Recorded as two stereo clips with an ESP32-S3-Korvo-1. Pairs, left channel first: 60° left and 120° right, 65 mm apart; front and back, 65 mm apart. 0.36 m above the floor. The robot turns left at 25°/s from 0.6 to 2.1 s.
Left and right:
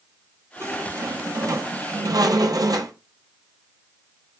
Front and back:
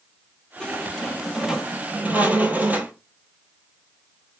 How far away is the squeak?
About 0.8 m.